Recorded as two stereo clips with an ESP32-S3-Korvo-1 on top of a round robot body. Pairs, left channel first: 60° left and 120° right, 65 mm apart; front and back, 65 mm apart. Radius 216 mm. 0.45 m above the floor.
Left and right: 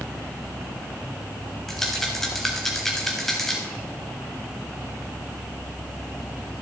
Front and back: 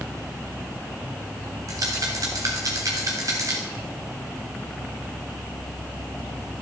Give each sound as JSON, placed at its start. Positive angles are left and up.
{"t": 1.7, "sound": "a rattle", "azimuth_deg": 145, "distance_m": 0.5}